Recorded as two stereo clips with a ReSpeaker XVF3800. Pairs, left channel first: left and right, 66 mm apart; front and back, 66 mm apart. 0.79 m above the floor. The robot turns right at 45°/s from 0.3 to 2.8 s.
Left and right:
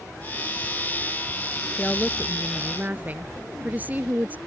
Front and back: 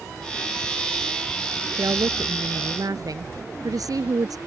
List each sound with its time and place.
1.8 s a woman speaking: 160° left; by 4.4 s 155° right